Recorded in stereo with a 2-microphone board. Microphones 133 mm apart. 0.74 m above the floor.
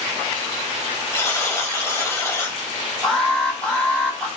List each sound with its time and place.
1.1 s a buzzer: 20° left (ahead or behind), 5 m
3.0 s an alarm: 5° left (ahead or behind), 8.5 m